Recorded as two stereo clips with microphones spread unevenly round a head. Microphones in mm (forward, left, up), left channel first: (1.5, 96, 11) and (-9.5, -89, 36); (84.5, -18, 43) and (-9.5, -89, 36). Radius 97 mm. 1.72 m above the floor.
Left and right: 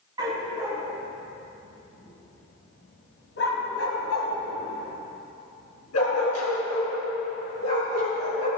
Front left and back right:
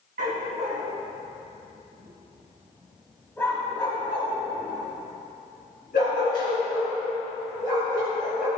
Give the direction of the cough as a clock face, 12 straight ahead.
No cough in this recording.